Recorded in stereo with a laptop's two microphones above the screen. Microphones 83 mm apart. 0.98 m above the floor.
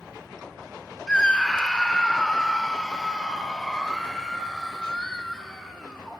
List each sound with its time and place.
1.1 s a scream: 15° left (ahead or behind), 3 m; by 6.2 s 5° left (ahead or behind), 6 m